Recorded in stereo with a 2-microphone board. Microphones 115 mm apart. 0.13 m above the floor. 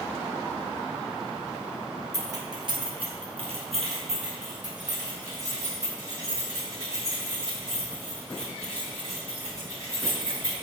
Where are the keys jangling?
30° right (ahead or behind), 1.4 m; by 10.5 s 85° right, 9 m.